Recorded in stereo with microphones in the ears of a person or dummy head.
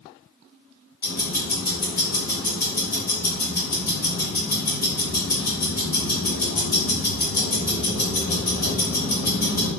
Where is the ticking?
20° left (ahead or behind), 1.3 m.